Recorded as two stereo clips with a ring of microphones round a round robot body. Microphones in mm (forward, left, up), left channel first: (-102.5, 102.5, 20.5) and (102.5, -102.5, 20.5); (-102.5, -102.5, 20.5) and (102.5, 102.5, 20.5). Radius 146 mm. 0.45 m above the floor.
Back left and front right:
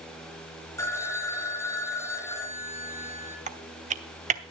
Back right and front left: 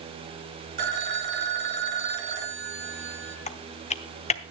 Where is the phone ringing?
55° left, 2 m.